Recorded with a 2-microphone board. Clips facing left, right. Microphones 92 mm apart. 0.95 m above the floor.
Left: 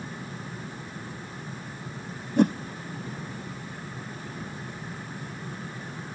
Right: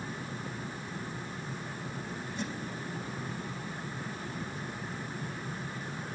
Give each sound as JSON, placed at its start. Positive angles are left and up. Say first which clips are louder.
{"t": 2.4, "sound": "a whoosh", "louder": "left 18 dB", "side_deg": 60, "distance_m": 0.7}